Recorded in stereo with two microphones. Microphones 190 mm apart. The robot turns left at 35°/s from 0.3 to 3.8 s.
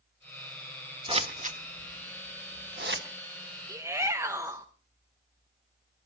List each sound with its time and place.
1.1 s scissors: 30° right (ahead or behind), 1.2 m; by 3.0 s 70° right (ahead or behind), 1.2 m
3.7 s a shout: 20° right (ahead or behind), 0.9 m; by 4.7 s 15° right (ahead or behind), 0.9 m